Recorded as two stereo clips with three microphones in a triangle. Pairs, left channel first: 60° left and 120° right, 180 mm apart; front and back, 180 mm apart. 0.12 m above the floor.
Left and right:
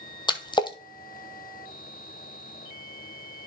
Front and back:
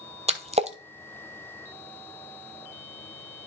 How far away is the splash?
About 0.9 m.